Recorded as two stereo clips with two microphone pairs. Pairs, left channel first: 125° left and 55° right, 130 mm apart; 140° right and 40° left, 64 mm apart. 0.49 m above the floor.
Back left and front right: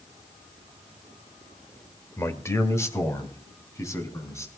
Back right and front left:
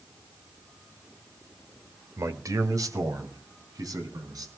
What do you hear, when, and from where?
2.2 s a man speaking: 60° left, 1.5 m; by 4.5 s 55° left, 4.5 m